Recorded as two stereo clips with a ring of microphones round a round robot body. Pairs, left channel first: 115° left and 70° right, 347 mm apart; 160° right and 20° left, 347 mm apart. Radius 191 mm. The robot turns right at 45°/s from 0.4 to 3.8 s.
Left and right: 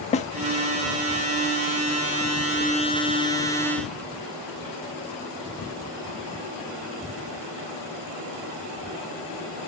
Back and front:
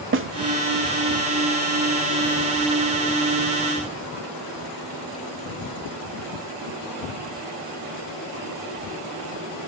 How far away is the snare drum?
About 0.8 m.